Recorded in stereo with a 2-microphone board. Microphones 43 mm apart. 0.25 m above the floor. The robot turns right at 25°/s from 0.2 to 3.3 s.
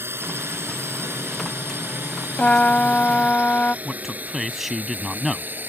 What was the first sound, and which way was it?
A drone, 65° right (ahead or behind).